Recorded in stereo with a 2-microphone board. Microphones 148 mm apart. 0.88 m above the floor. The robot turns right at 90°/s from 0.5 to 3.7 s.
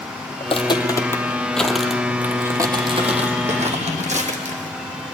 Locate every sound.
0.4 s footsteps: 40° left (ahead or behind), 1.2 m; by 4.8 s 60° right (ahead or behind), 1.8 m